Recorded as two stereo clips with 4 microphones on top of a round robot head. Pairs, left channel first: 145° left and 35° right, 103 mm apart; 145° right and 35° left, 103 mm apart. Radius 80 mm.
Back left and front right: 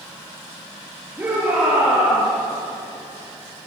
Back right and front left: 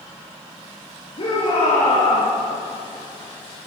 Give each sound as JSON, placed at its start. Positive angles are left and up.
{"t": 1.2, "sound": "a shout", "azimuth_deg": -110, "distance_m": 8.5}